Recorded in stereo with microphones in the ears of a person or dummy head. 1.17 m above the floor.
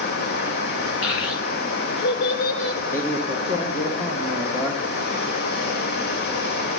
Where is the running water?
60° left (ahead or behind), 2 m.